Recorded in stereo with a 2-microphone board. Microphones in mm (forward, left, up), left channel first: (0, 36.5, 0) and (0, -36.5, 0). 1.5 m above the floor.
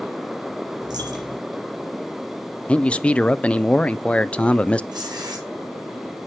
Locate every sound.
0.8 s a dropped coin: 75° right (ahead or behind), 5 m
2.7 s a man speaking: 15° left (ahead or behind), 0.5 m
4.9 s tearing paper: 75° right (ahead or behind), 7.5 m